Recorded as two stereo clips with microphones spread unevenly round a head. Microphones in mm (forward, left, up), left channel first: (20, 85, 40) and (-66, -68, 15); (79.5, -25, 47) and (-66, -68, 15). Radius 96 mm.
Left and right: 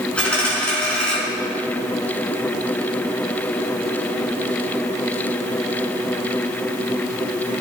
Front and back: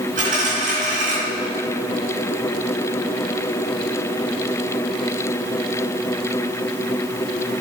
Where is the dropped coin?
140° left, 4 m.